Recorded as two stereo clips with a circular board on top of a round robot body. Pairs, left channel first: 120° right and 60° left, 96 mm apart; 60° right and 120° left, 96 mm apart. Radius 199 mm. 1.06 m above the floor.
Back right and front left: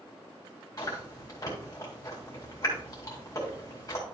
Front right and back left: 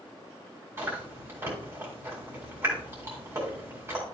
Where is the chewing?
175° right, 2.0 m.